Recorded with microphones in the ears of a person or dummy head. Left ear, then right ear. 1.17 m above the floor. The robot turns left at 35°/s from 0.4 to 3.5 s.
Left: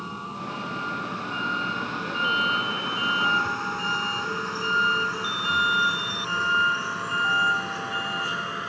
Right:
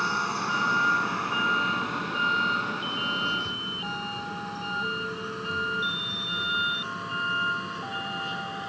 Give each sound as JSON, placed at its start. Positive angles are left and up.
{"t": 0.0, "sound": "a vehicle", "side_deg": -55}